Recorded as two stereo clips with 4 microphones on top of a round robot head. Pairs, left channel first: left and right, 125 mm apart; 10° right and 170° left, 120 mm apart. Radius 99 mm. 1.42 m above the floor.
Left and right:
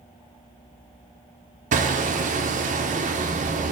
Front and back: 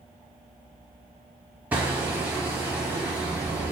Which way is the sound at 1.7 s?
105° right.